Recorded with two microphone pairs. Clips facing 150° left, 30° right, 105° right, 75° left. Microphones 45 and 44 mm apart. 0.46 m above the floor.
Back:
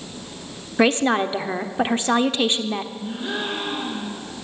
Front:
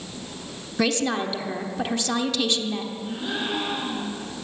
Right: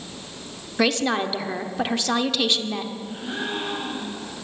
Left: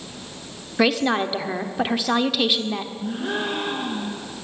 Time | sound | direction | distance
0.8 | a woman speaking | 145° left | 0.9 m
3.0 | a gasp | 60° left | 4.5 m